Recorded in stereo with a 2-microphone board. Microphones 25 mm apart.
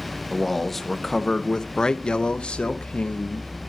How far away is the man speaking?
About 1.5 m.